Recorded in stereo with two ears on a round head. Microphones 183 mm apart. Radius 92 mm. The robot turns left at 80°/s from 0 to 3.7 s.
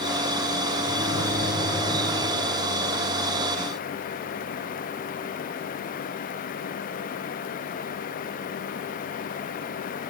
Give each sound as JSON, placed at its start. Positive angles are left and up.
{"t": 0.8, "sound": "a microwave", "azimuth_deg": 105, "distance_m": 3.0}